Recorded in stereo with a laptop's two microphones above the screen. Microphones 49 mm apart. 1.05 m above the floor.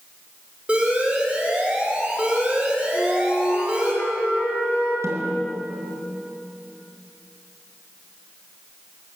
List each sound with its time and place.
0.7 s an alarm: 20° right (ahead or behind), 2.5 m
2.9 s a flute: 65° left (ahead or behind), 5 m
5.0 s a snare drum: 65° right (ahead or behind), 2.5 m